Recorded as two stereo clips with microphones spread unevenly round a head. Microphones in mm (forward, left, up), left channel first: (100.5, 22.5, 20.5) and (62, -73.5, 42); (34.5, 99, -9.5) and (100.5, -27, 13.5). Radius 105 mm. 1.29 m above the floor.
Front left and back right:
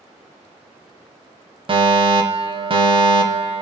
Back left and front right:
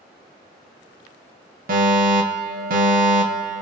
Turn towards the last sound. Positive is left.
turn(degrees=-80)